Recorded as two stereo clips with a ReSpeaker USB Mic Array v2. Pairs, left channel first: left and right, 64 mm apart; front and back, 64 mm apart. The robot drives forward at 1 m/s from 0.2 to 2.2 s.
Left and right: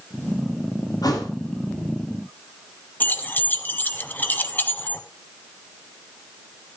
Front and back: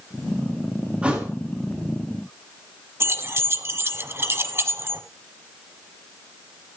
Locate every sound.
1.0 s a thud: 105° left, 4 m; by 1.3 s 110° left, 4.5 m
3.0 s keys jangling: 145° left, 1.2 m